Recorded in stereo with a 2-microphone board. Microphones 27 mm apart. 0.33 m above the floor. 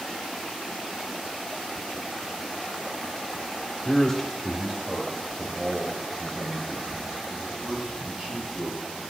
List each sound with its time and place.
3.9 s a man speaking: 25° left (ahead or behind), 0.9 m; by 9.1 s 50° right (ahead or behind), 3.5 m